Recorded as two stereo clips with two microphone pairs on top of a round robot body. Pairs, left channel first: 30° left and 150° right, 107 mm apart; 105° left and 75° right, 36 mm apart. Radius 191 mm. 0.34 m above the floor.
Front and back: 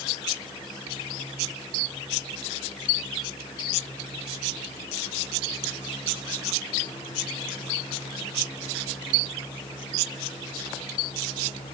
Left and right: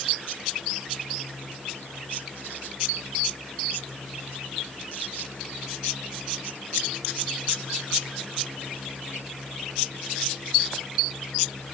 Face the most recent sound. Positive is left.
No sound to turn to.